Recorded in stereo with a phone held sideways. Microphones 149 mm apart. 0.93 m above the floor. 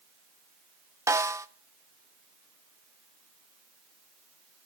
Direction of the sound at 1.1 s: 20° right (ahead or behind).